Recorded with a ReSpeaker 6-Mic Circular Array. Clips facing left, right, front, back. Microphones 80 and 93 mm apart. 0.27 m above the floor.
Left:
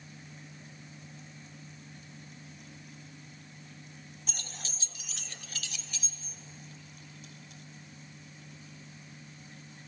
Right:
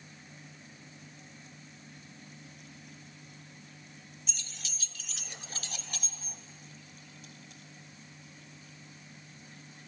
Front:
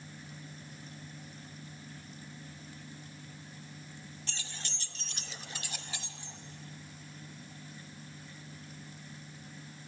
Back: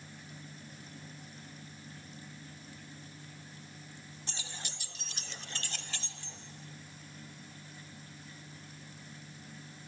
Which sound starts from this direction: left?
Keys jangling, at 4.3 s.